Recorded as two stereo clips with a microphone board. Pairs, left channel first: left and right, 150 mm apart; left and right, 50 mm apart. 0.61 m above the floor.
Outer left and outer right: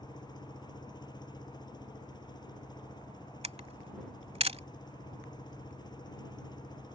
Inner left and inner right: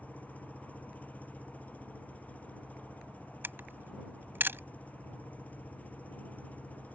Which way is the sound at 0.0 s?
30° left (ahead or behind).